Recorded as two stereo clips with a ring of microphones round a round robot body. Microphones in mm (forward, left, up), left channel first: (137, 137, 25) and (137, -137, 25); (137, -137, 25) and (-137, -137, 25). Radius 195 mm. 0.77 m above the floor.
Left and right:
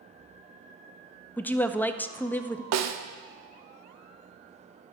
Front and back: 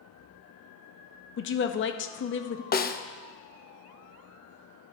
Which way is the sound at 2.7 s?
60° right.